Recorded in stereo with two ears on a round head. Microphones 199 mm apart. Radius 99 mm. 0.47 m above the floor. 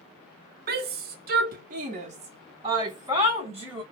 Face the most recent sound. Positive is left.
turn(degrees=-10)  # may be behind; listen again after turning